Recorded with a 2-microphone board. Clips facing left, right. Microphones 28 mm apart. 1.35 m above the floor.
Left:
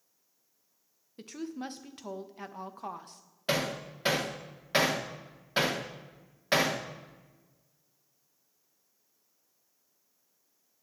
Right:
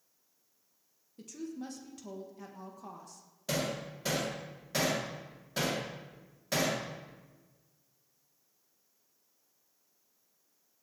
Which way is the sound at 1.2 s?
45° left (ahead or behind).